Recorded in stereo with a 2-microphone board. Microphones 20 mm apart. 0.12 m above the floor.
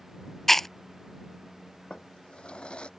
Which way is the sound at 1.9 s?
60° left (ahead or behind).